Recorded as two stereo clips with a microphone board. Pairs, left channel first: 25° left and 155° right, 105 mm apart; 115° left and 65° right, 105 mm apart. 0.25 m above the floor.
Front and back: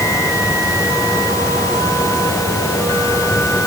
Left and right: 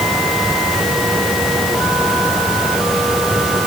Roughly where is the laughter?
No laughter in this recording.